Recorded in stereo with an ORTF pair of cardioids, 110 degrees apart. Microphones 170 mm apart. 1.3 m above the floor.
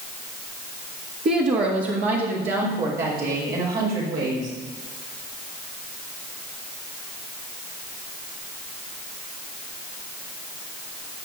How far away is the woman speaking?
About 1.9 m.